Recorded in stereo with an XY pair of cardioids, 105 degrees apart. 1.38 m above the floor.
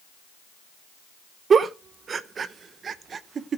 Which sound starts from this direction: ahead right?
A giggle, at 1.5 s.